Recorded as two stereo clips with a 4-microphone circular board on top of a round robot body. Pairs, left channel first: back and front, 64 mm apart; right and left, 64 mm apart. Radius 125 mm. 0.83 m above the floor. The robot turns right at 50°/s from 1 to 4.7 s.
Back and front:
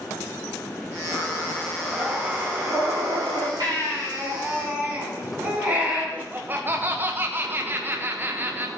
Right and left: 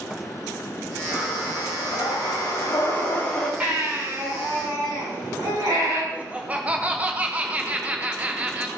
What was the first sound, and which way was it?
Breathing, 125° right.